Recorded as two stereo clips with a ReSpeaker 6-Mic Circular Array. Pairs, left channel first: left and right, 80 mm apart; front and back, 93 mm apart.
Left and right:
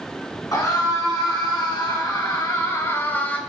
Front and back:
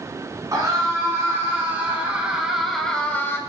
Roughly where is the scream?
Behind left.